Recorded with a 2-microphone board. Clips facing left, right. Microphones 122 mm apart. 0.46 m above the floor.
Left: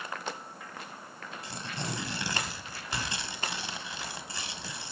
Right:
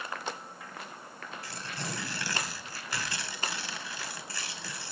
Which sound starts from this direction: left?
Tearing paper, at 1.4 s.